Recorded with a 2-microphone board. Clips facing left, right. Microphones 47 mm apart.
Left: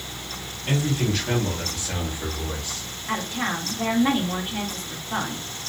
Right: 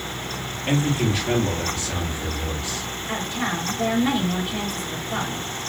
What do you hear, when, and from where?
0.7 s a man speaking: 35° right (ahead or behind), 1.2 m; by 2.9 s 30° left (ahead or behind), 1.7 m
3.1 s a woman speaking: 35° left (ahead or behind), 1.5 m